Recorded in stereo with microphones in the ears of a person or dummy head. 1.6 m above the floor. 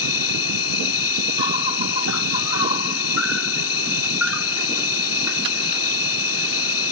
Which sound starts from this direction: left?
An insect, at 0.0 s.